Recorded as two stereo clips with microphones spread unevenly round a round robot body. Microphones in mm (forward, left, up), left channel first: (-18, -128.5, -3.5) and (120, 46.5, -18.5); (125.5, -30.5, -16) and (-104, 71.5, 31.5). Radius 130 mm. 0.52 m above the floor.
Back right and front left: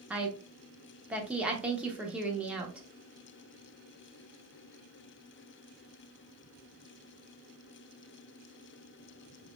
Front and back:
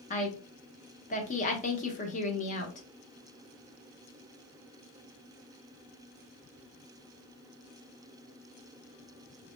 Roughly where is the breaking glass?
No breaking glass in this recording.